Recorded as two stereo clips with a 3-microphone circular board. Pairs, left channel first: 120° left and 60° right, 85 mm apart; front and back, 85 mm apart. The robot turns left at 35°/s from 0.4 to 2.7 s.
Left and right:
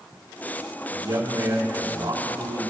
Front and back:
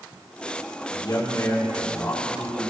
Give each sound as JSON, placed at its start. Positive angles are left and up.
{"t": 0.9, "sound": "a man speaking", "azimuth_deg": -30, "distance_m": 2.5}